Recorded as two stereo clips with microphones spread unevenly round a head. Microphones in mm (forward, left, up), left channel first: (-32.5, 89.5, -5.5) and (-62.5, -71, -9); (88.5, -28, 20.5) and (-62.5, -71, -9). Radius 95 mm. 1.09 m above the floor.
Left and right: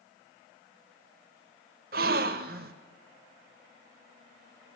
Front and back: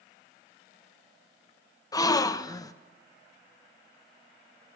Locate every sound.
1.9 s a gasp: 55° right, 0.5 m